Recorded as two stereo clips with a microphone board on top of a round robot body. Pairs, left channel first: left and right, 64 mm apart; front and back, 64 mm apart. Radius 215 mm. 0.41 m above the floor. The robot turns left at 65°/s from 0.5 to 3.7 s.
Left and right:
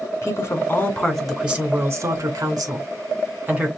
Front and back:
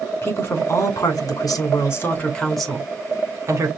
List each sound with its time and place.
0.2 s a woman speaking: 45° left, 2.5 m; by 3.7 s 160° right, 2.5 m